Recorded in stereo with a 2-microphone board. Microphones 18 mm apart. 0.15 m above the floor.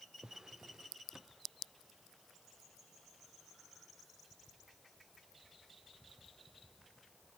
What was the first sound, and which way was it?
A drawer, 35° right (ahead or behind).